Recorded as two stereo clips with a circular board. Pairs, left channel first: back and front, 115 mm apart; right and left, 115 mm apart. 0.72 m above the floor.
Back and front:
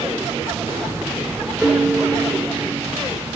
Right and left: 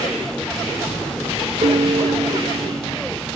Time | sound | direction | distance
1.6 | a piano | 80° left | 0.6 m